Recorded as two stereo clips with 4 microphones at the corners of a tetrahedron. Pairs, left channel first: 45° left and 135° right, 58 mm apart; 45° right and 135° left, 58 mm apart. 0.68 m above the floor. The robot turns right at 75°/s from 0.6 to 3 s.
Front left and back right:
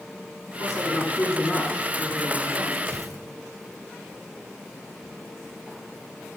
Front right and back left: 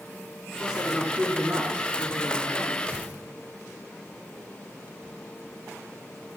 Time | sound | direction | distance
0.6 | a woman speaking | 40° left | 7.5 m
2.9 | tearing paper | 175° right | 2.5 m